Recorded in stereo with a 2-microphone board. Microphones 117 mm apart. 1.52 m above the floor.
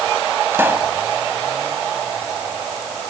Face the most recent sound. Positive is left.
turn(degrees=-20)  # may be behind; listen again after turning